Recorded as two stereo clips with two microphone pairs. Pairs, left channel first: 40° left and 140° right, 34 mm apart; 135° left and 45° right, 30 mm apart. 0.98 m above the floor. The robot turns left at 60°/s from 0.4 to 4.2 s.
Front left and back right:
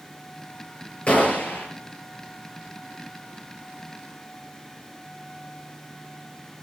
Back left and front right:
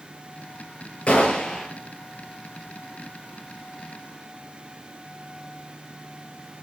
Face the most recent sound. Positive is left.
turn(degrees=-95)